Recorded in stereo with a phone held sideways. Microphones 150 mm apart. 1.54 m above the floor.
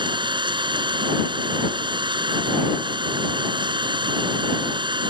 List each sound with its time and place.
0.0 s an engine running: 30° right (ahead or behind)